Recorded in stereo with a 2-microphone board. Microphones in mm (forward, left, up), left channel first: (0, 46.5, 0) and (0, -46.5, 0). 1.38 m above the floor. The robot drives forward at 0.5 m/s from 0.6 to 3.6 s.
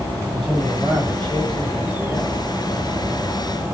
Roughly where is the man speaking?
Centre.